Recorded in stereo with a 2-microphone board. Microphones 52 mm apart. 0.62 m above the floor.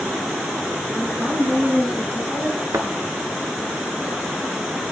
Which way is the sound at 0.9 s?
20° right (ahead or behind).